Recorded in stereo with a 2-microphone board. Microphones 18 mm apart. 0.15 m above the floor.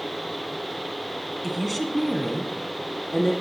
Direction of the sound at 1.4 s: 5° right (ahead or behind).